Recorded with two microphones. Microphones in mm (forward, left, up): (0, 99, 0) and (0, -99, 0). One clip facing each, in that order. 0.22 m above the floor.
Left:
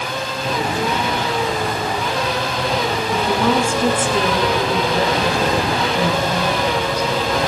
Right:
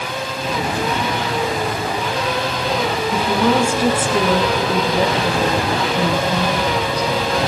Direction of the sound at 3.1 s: 5° right (ahead or behind).